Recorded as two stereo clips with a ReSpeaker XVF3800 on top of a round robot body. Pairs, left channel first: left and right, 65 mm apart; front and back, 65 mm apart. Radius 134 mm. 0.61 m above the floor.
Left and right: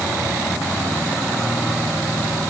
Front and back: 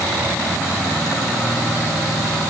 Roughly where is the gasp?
I don't hear a gasp.